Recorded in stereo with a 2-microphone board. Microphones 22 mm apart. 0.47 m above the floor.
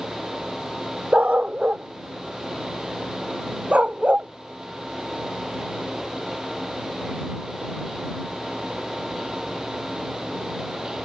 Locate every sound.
1.1 s a dog barking: 80° right